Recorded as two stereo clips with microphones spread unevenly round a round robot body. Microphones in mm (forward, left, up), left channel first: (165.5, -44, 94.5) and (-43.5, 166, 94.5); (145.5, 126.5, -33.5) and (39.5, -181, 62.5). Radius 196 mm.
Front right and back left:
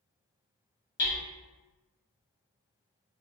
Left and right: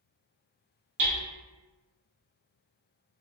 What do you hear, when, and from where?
1.0 s hammering: 75° right, 1.3 m